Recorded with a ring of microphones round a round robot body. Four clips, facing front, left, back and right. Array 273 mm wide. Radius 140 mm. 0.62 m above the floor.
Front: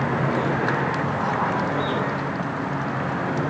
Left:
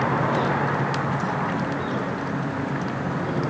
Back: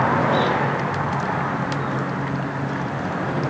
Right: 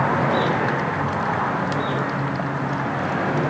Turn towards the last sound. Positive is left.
No sound to turn to.